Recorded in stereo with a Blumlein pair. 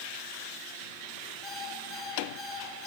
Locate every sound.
1.4 s an alarm clock: 20° left, 7.5 m